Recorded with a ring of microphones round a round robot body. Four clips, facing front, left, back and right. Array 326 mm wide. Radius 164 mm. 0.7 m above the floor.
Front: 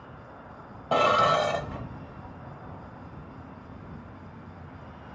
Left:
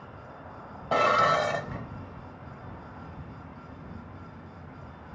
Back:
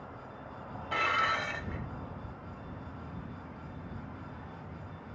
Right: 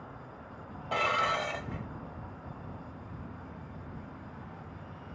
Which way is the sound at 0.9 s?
35° left.